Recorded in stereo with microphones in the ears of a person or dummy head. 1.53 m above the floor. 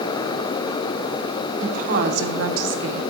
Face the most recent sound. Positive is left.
turn(degrees=-75)  # may be behind; listen again after turning